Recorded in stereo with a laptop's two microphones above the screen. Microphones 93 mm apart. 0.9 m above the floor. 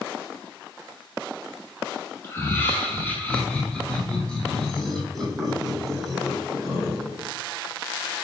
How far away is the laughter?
About 1.6 m.